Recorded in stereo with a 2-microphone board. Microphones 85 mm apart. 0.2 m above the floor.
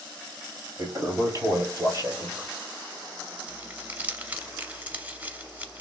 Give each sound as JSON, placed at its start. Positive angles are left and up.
{"t": 0.8, "sound": "a toilet flushing", "side_deg": -45, "distance_m": 2.0}
{"t": 3.5, "sound": "crumpling", "side_deg": -20, "distance_m": 0.8}